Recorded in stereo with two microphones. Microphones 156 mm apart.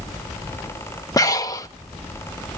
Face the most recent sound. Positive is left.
turn(degrees=25)  # may be behind; listen again after turning